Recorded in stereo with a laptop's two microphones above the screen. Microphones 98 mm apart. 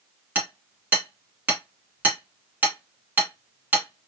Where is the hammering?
20° right (ahead or behind), 1.1 m.